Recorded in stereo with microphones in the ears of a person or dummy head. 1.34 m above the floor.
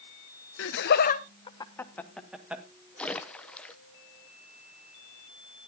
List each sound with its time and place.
0.6 s laughter: 70° left (ahead or behind), 1.3 m; by 2.6 s 10° right (ahead or behind), 2 m
3.0 s a splash: 5° left (ahead or behind), 0.7 m